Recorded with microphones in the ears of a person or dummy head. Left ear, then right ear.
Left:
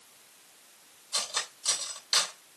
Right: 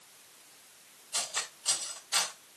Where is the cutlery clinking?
30° left (ahead or behind), 3.5 m.